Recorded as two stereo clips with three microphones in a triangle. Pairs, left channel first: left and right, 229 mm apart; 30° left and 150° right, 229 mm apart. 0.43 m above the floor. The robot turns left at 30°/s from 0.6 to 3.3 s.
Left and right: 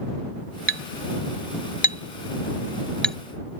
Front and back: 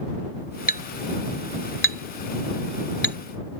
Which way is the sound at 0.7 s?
75° left.